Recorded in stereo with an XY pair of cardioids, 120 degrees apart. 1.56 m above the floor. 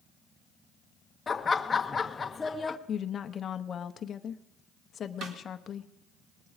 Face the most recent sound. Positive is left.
turn(degrees=-70)